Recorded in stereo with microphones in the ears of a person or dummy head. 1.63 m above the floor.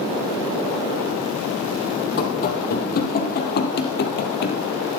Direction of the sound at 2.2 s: 50° left (ahead or behind).